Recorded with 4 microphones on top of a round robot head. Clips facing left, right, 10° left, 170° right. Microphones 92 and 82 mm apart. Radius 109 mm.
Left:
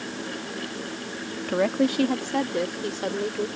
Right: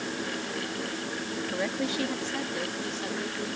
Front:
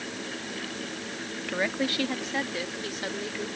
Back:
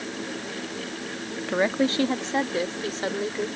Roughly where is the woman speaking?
Behind left.